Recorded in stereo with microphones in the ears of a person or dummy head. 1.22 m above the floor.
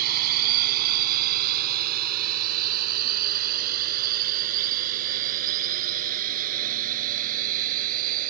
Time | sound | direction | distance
0.0 | a drone | 55° right (ahead or behind) | ?